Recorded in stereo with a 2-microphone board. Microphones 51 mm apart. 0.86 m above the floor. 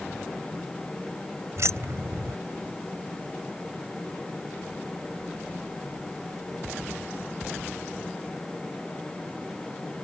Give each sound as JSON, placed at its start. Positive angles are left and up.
{"t": 1.6, "sound": "keys jangling", "side_deg": -65}